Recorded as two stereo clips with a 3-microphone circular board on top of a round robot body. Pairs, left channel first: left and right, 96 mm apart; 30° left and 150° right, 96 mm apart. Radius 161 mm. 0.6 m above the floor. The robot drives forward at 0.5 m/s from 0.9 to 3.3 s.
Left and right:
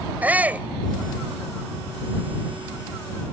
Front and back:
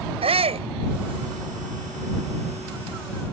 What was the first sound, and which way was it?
A shout, 165° right.